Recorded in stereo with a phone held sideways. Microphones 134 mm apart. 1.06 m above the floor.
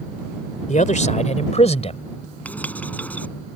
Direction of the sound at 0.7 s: 60° left (ahead or behind).